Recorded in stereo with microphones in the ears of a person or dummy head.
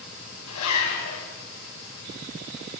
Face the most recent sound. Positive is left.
turn(degrees=85)